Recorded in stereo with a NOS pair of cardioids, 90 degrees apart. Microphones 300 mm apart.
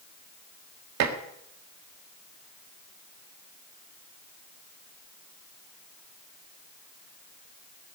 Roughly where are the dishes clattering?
Ahead right.